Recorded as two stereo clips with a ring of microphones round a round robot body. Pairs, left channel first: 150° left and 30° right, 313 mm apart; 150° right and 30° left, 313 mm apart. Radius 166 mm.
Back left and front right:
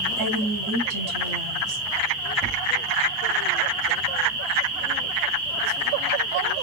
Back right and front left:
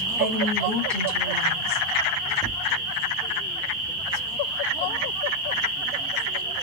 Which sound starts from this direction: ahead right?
A woman speaking, at 0.2 s.